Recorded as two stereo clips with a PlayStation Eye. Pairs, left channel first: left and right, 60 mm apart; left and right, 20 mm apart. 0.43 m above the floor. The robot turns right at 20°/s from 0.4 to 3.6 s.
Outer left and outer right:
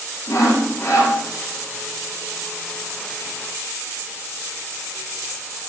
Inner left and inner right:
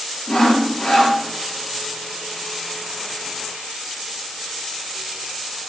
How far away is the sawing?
About 4 m.